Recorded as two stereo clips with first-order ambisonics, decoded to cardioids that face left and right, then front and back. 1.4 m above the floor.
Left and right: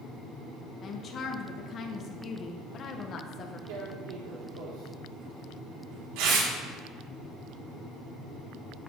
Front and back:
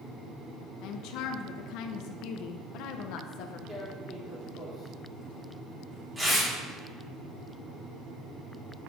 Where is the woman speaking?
30° left, 0.9 m.